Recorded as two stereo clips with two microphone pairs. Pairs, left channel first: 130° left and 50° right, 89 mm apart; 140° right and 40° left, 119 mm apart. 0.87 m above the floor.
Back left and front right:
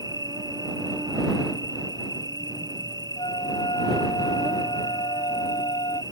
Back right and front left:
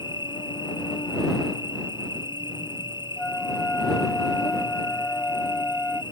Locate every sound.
0.0 s an insect: 90° right
3.2 s a flute: 140° left